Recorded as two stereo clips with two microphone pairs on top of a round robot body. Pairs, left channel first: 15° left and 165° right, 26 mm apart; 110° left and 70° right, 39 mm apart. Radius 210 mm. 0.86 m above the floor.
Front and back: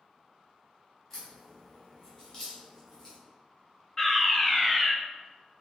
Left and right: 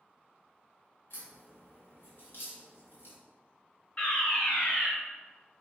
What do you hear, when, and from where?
1.1 s a crack: 75° left, 1.5 m
4.0 s a fire alarm: 95° left, 1.7 m